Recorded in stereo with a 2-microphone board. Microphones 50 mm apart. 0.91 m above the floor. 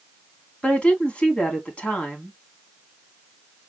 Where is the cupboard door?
I don't hear a cupboard door.